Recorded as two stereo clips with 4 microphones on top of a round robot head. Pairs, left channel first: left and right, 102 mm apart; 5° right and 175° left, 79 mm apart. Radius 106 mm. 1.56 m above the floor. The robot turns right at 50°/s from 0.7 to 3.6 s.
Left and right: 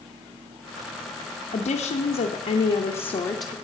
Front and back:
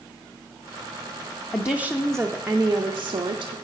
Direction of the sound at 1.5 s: 50° left.